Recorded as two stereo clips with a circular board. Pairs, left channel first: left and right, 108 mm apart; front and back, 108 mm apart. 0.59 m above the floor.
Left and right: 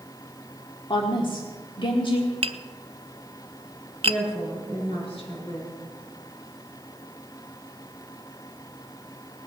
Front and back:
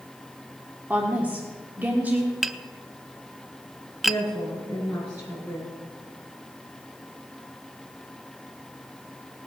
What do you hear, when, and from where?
0.9 s a woman speaking: 110° left, 1.3 m
2.4 s tapping: 90° right, 0.6 m
4.0 s a woman speaking: 70° left, 6.5 m